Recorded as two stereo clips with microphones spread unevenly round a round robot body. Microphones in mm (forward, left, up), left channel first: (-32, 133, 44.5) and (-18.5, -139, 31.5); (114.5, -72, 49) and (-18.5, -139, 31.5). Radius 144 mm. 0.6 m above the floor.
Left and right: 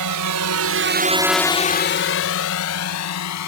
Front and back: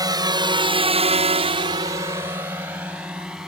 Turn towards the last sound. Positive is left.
turn(degrees=120)